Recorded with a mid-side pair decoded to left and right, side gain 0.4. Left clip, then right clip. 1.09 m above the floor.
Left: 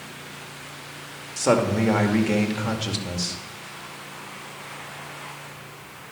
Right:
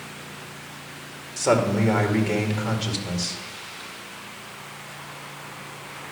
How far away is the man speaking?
About 2 m.